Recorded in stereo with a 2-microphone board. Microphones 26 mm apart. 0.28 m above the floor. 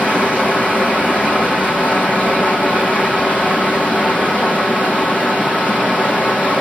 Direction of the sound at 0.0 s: 65° left (ahead or behind).